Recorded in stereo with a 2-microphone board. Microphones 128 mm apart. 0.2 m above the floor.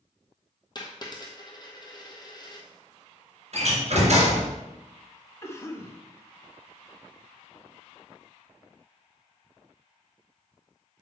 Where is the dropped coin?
35° left (ahead or behind), 1.4 m.